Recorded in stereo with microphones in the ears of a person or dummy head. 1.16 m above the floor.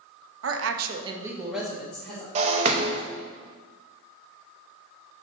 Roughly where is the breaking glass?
Right.